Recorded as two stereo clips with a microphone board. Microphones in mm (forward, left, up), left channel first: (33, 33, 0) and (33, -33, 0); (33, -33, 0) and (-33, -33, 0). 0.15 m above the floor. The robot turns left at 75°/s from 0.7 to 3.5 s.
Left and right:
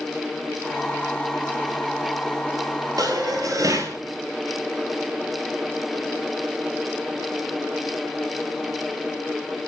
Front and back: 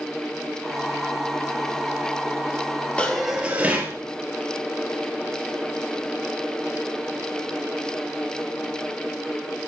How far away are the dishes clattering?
About 2 m.